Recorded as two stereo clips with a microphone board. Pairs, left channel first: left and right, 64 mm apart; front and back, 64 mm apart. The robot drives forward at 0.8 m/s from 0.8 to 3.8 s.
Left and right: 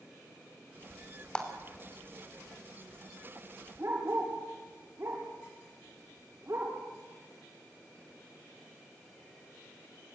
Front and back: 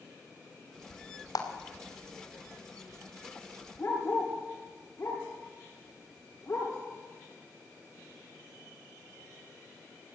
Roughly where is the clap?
Ahead.